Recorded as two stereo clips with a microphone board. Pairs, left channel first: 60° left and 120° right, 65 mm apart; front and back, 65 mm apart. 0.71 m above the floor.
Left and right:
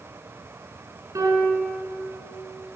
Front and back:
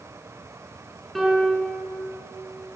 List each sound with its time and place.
1.1 s a piano: 85° right, 4.5 m